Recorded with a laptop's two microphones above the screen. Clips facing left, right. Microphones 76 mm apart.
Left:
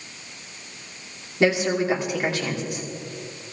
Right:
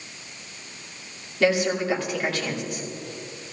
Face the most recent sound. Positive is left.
turn(degrees=20)  # may be behind; listen again after turning